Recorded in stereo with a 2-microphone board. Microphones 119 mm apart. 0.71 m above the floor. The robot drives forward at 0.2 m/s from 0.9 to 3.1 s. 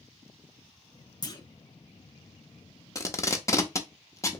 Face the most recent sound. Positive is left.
turn(degrees=25)  # may be behind; listen again after turning